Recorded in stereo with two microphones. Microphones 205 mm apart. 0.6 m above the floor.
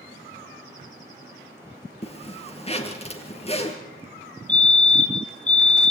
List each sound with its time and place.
2.0 s a zipper: 30° left (ahead or behind), 2.5 m
4.5 s a fire alarm: 35° left (ahead or behind), 1.9 m